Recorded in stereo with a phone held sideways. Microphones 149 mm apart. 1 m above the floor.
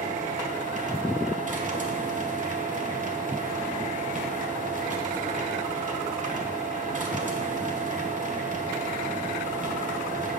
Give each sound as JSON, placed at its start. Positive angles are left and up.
{"t": 0.0, "sound": "a machine running", "side_deg": -55, "distance_m": 1.3}